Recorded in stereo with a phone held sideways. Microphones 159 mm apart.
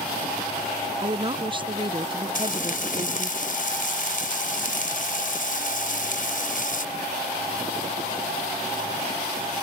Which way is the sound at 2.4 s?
55° left (ahead or behind).